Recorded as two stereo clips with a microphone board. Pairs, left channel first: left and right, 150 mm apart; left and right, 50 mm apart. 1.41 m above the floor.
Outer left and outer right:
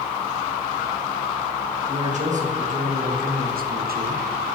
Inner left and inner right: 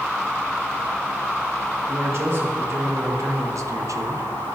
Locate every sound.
1.9 s a man speaking: 50° right (ahead or behind), 1.9 m; by 4.3 s 70° right (ahead or behind), 0.6 m